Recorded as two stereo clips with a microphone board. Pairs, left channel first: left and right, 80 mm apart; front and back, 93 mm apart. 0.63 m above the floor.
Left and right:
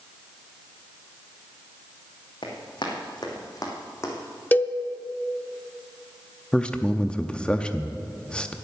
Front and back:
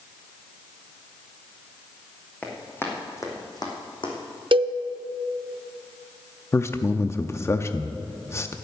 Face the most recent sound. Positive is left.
turn(degrees=25)